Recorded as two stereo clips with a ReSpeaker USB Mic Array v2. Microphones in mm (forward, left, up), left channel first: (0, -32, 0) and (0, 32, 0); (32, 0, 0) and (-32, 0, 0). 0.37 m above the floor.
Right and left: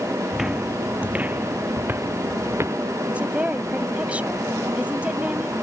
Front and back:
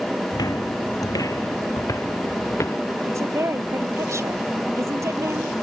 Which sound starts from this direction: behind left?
A woman speaking, at 3.1 s.